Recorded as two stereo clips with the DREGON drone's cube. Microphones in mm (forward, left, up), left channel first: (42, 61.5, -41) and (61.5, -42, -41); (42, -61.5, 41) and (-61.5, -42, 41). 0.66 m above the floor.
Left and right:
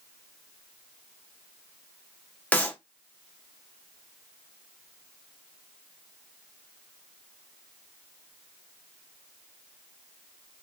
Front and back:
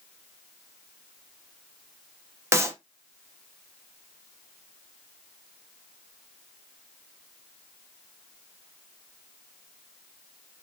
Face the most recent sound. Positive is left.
turn(degrees=155)